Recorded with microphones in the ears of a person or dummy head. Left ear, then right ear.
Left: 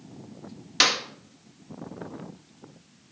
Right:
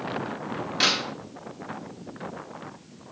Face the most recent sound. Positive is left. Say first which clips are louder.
# left 1 dB
turn(degrees=75)  # may be behind; listen again after turning